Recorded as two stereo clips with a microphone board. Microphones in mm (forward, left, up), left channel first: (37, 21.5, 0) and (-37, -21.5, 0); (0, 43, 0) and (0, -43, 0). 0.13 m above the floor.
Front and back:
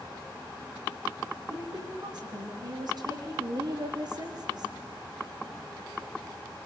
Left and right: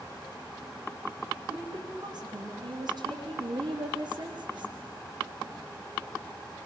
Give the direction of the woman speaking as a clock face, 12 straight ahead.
4 o'clock.